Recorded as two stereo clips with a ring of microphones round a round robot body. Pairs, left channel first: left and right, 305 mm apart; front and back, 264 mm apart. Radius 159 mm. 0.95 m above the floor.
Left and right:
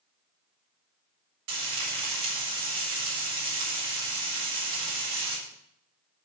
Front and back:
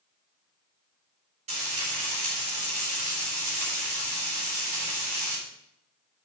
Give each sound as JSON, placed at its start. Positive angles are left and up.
{"t": 1.5, "sound": "frying", "azimuth_deg": -110, "distance_m": 4.0}